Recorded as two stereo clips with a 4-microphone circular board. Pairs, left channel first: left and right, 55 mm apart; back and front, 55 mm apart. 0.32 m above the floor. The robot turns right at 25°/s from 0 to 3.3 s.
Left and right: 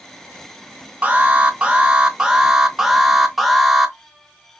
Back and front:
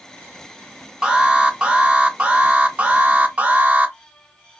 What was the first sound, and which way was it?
An alarm, 60° right.